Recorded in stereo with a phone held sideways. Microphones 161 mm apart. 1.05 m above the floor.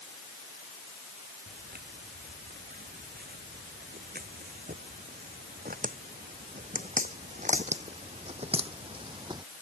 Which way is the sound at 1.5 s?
75° right (ahead or behind).